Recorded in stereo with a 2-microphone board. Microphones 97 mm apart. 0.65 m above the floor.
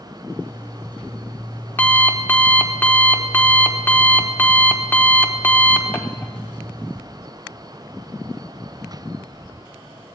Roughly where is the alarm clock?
Left.